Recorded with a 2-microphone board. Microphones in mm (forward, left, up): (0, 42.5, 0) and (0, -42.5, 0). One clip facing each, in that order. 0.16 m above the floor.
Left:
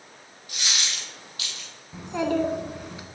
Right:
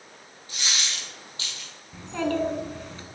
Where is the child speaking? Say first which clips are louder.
Left 2 dB; 15° left (ahead or behind), 1.0 m.